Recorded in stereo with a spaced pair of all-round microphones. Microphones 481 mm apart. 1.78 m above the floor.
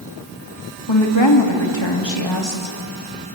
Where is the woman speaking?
65° left (ahead or behind), 3 m.